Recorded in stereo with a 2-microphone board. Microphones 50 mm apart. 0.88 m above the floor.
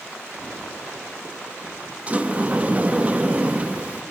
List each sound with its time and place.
2.1 s a sliding door: 25° right (ahead or behind), 0.9 m